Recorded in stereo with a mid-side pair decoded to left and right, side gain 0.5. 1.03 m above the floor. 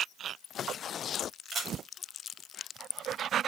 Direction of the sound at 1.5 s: 40° right.